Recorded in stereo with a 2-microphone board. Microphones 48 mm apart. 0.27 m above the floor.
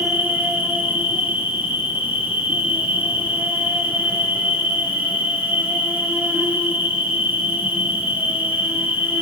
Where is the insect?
35° right (ahead or behind), 5.5 m.